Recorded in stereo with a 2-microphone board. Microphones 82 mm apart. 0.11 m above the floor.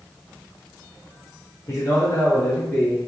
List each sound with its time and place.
1.7 s a man speaking: 45° left (ahead or behind), 1.5 m; by 3.0 s 5° left (ahead or behind), 1.5 m